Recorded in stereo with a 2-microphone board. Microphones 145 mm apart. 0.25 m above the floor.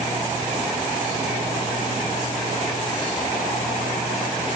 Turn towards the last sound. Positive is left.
No sound to turn to.